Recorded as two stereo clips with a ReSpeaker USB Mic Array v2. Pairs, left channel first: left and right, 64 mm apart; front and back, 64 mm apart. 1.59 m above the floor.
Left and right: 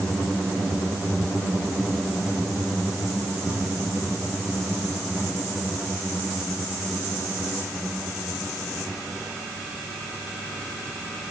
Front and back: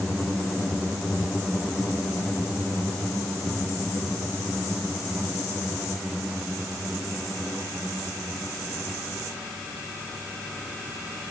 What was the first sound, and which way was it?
Only background noise.